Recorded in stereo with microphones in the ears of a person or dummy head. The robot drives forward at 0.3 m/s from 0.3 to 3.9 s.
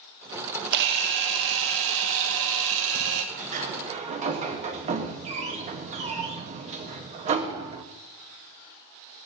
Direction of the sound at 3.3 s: 40° right (ahead or behind).